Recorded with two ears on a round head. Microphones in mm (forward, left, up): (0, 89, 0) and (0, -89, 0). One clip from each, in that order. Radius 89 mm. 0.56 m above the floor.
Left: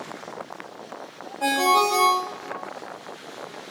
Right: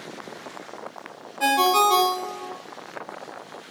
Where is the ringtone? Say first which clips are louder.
Right 1 dB; 65° right (ahead or behind), 0.9 m.